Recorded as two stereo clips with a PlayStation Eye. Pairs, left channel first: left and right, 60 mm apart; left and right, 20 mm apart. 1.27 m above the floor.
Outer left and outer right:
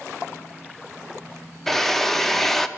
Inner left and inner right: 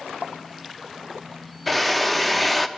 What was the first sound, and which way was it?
A drill, 5° left (ahead or behind).